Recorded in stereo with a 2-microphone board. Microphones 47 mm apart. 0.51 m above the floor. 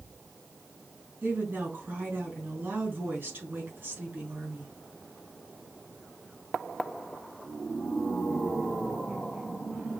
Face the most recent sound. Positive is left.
turn(degrees=-55)  # may be behind; listen again after turning